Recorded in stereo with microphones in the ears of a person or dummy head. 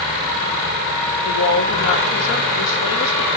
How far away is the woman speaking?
About 1.3 m.